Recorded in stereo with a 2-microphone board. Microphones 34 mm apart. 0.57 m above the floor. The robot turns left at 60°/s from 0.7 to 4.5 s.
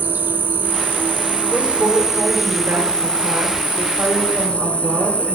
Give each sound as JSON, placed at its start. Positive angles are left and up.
{"t": 0.0, "sound": "an insect", "azimuth_deg": -80, "distance_m": 0.7}
{"t": 1.5, "sound": "a woman speaking", "azimuth_deg": 20, "distance_m": 3.0}